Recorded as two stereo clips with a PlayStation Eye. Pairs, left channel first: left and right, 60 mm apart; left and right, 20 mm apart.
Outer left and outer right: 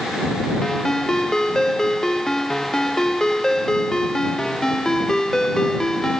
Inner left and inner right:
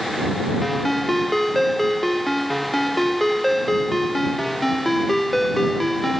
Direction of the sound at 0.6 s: 10° left (ahead or behind).